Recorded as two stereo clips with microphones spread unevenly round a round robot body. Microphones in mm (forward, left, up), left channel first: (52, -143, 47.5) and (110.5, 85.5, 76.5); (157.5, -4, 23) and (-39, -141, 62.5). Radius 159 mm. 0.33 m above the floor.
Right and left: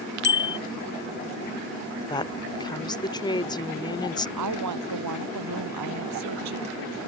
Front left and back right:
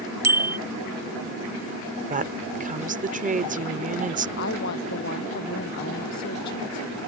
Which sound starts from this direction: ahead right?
A bicycle bell, at 0.2 s.